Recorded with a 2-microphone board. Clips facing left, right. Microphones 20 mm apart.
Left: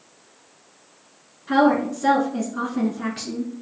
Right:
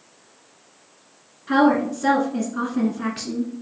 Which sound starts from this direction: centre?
A woman speaking, at 1.5 s.